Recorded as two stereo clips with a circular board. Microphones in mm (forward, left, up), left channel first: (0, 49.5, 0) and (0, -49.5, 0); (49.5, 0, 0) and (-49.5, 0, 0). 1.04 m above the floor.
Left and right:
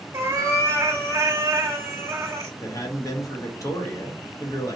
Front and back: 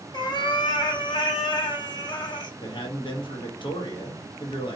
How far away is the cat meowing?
About 0.8 m.